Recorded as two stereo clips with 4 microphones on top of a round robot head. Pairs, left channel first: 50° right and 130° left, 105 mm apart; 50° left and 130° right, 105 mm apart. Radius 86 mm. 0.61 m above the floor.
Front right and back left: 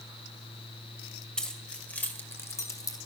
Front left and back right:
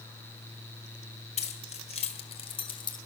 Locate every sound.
1.4 s keys jangling: 35° left, 2 m; by 3.0 s 5° left, 1.6 m